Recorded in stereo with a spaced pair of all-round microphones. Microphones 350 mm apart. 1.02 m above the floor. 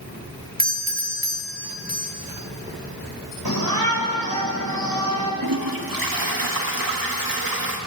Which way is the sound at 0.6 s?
25° right (ahead or behind).